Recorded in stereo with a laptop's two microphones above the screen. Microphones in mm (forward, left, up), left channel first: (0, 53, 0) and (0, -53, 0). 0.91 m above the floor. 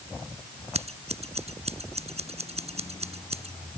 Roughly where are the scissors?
Right.